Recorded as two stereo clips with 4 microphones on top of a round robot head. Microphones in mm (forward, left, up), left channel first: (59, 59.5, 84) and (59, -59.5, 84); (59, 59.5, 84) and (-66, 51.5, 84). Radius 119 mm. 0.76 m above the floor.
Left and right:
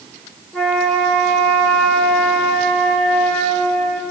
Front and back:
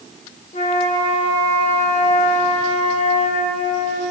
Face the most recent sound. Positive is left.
turn(degrees=10)